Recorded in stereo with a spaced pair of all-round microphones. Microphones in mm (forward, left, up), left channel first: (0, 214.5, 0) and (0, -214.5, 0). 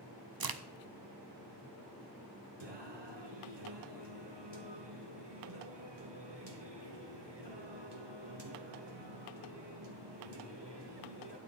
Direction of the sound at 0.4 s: 55° right (ahead or behind).